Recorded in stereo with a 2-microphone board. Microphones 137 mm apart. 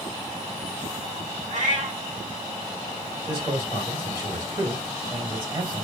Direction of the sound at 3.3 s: 30° right (ahead or behind).